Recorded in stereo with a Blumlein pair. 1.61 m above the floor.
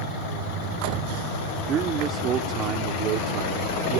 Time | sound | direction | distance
1.7 | a man speaking | 25° right | ?